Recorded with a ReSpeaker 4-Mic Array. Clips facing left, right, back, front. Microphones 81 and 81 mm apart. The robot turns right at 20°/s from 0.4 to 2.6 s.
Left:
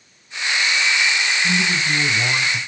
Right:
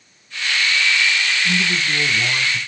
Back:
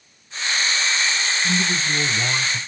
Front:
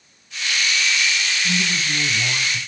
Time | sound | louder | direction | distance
1.4 | a man speaking | even, back 2 dB | 130° left | 1.1 m